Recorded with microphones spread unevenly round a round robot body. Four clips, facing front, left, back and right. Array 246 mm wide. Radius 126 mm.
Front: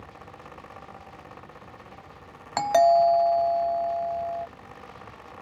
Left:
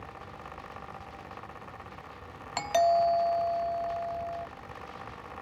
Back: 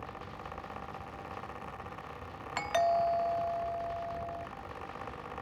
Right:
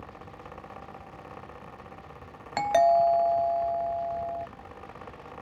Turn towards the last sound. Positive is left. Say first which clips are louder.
# right 3 dB, front 10 dB
turn(degrees=-25)